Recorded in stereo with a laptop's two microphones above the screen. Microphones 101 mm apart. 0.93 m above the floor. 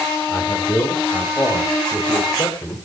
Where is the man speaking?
30° left (ahead or behind), 5.5 m; by 2.8 s 35° left (ahead or behind), 4.5 m.